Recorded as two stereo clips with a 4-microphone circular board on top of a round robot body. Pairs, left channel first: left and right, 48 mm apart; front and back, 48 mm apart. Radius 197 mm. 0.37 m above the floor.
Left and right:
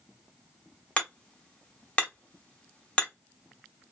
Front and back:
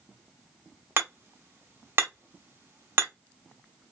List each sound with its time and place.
1.0 s hammering: 155° left, 1.8 m